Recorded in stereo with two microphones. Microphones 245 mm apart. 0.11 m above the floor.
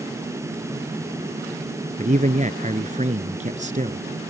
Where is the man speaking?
30° right (ahead or behind).